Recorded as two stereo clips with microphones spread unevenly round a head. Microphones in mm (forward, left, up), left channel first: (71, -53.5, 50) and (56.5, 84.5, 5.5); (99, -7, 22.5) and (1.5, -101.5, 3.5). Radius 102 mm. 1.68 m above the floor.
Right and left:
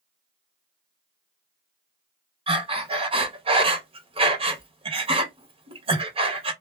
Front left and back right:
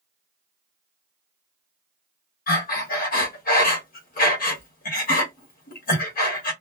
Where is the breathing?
40° left, 1.3 m.